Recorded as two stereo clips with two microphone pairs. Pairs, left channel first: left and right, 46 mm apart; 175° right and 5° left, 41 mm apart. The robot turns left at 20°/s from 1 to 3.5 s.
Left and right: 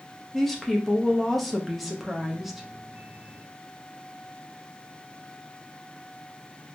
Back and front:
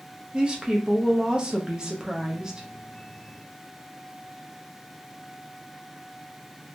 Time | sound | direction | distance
0.3 | a woman speaking | 15° left | 0.6 m